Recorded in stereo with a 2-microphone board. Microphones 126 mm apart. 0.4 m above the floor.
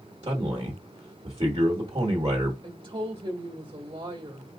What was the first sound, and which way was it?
A man speaking, 35° right (ahead or behind).